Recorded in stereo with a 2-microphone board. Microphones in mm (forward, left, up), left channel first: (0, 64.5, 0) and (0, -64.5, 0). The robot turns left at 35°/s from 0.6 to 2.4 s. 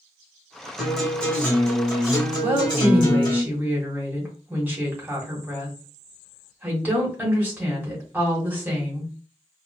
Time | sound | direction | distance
0.8 | a guitar | 175° right | 1.5 m
2.4 | a woman speaking | 15° right (ahead or behind) | 1.9 m